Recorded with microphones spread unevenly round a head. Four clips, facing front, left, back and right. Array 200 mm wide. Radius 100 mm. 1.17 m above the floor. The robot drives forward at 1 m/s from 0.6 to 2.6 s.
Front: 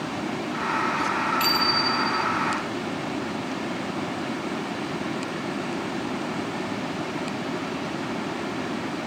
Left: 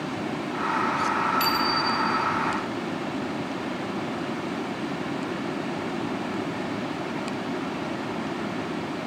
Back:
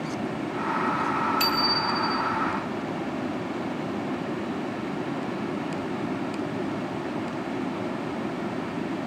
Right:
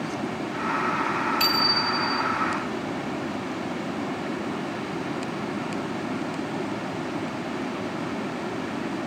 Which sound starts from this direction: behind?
A bicycle bell, at 1.4 s.